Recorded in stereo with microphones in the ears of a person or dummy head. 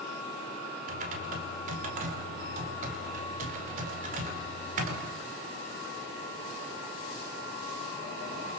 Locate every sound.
0.9 s typing on a keyboard: 50° right (ahead or behind), 5 m